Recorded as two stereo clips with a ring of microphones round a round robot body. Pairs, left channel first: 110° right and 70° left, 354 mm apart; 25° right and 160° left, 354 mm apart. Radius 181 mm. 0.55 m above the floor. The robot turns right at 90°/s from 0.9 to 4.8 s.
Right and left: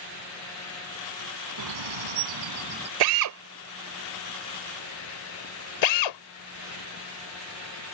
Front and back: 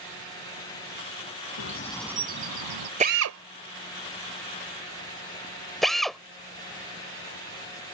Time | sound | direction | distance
1.6 | a bird | 25° left | ?
3.0 | a drill | 85° left | ?